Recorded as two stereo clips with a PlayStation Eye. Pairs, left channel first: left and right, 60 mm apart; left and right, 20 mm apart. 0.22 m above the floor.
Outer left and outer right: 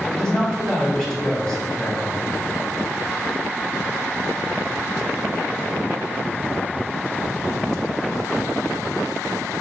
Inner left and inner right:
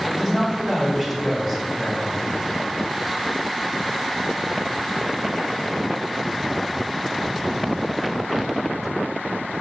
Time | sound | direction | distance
0.1 | a man speaking | 15° left (ahead or behind) | 1.4 m